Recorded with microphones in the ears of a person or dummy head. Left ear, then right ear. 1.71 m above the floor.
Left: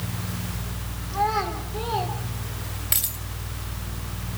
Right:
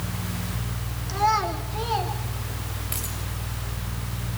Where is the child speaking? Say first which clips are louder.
Right 2 dB; 70° right (ahead or behind), 3 m; by 2.1 s 80° right, 3.5 m.